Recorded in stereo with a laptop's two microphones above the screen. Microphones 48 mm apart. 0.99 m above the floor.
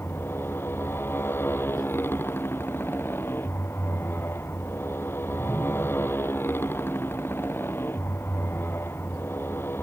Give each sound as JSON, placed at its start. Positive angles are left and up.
{"t": 0.0, "sound": "a motorcycle", "side_deg": 55}